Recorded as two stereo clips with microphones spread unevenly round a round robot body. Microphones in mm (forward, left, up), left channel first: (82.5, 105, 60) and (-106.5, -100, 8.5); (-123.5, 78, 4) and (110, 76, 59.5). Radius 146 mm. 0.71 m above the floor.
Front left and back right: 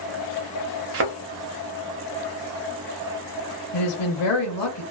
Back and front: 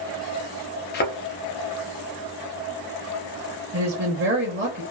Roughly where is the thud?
Behind right.